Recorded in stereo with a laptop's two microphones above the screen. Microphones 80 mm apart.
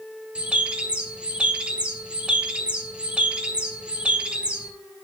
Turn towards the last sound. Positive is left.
turn(degrees=-15)  # may be behind; listen again after turning